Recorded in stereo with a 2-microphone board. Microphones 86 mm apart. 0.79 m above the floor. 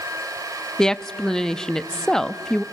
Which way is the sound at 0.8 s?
5° left (ahead or behind).